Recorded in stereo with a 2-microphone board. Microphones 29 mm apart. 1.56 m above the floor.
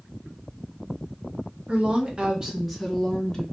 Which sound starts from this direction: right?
A woman speaking, at 1.7 s.